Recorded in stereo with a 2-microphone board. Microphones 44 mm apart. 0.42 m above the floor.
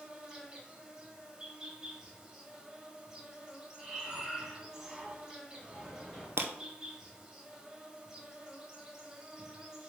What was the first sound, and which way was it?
An insect, 15° right (ahead or behind).